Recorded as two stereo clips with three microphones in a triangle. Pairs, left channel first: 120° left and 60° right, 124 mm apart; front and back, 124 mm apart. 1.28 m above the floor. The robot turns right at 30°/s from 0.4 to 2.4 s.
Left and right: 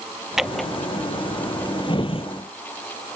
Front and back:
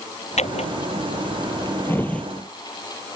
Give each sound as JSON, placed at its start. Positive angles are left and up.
{"t": 0.4, "sound": "a drawer", "azimuth_deg": 25}